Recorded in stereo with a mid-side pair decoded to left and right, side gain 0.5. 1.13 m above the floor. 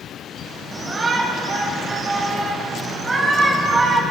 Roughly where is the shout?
Ahead right.